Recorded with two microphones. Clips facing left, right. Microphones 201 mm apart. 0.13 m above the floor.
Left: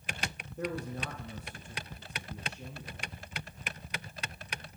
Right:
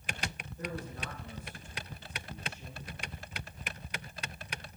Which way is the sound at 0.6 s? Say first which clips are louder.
Left 5 dB; 70° left (ahead or behind).